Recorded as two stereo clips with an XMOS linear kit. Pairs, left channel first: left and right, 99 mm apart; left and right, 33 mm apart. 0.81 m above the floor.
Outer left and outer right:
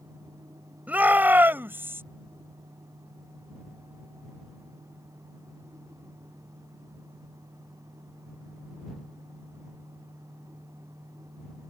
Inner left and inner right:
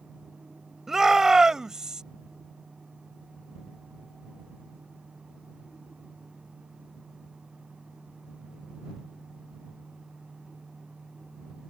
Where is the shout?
15° right (ahead or behind); by 2.0 s 25° right (ahead or behind).